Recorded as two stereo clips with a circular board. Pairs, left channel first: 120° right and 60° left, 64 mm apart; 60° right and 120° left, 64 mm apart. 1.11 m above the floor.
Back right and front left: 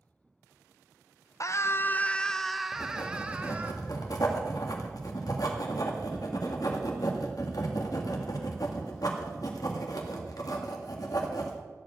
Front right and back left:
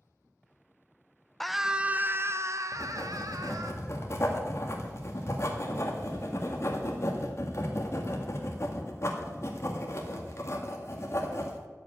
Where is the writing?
100° right, 1.9 m.